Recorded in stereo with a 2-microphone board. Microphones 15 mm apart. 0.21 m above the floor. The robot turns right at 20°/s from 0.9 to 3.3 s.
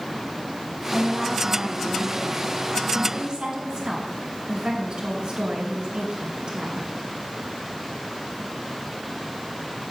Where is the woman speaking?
130° right, 2.5 m; by 6.9 s 80° right, 2.5 m.